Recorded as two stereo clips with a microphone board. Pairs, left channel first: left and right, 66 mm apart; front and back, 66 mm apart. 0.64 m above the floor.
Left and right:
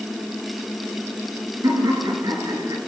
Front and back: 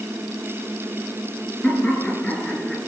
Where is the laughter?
70° right, 9.5 m; by 2.8 s 75° right, 8 m.